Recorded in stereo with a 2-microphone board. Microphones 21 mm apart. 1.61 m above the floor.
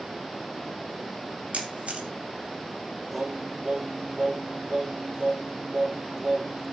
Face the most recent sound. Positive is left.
turn(degrees=-60)  # may be behind; listen again after turning